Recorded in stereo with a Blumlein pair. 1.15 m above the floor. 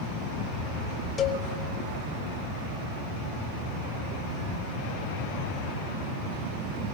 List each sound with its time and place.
1.2 s a cowbell: 20° left, 2.5 m